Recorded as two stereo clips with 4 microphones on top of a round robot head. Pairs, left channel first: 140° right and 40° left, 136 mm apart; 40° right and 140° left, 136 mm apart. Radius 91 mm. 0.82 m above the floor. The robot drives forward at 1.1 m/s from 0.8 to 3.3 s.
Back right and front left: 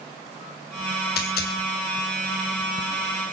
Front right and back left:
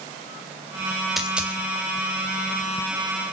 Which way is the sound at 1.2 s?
135° right.